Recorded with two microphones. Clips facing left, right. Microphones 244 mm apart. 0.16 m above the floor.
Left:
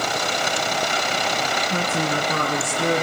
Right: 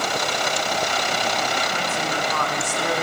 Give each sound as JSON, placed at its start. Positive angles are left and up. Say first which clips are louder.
{"t": 1.7, "sound": "a woman speaking", "louder": "left 3 dB", "side_deg": 40, "distance_m": 2.5}